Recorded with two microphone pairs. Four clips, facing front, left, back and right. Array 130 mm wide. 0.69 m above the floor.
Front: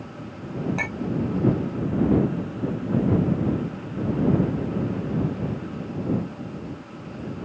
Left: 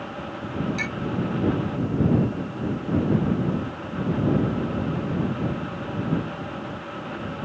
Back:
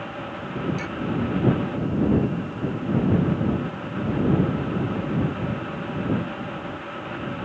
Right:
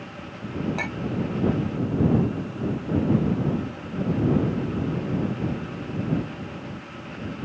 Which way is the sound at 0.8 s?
55° right.